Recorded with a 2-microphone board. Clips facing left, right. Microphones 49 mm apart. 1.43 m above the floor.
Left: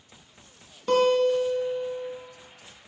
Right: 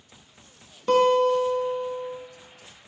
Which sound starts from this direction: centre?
A guitar, at 0.9 s.